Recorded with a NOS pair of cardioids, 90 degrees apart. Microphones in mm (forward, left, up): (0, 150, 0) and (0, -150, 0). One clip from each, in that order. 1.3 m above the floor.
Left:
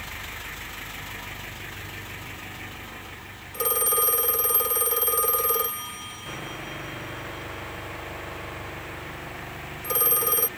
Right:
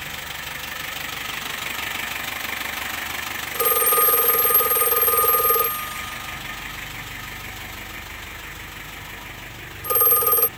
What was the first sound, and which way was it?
A phone ringing, 30° right.